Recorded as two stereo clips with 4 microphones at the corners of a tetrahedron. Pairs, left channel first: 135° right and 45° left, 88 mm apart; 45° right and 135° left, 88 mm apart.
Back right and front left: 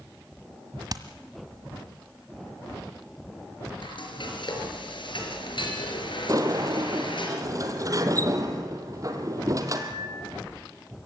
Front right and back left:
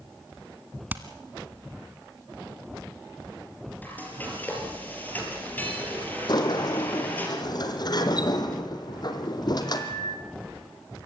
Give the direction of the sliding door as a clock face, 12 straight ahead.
12 o'clock.